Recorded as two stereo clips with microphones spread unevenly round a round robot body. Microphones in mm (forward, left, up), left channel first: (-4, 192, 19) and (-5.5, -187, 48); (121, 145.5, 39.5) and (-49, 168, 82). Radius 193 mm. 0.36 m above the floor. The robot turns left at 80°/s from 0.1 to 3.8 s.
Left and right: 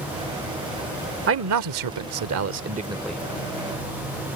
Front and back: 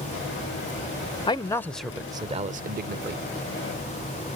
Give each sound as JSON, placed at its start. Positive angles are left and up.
{"t": 1.3, "sound": "a man speaking", "azimuth_deg": -40}